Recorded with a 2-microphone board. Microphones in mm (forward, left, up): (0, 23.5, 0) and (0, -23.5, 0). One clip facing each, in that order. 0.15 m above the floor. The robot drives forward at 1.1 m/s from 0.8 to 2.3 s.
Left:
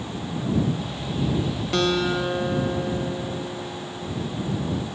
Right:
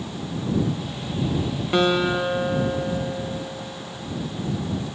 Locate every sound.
1.7 s a guitar: 20° right (ahead or behind), 0.8 m; by 4.6 s 15° right (ahead or behind), 1.1 m